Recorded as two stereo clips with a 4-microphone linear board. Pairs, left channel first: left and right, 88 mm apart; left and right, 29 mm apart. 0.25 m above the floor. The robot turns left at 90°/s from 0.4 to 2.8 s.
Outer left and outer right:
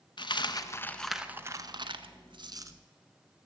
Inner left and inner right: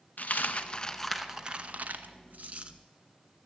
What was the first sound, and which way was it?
A dropped coin, 60° left (ahead or behind).